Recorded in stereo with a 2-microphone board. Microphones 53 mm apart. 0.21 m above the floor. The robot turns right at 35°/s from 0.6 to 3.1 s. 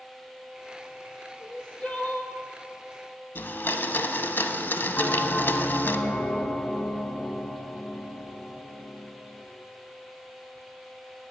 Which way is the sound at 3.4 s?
45° left (ahead or behind).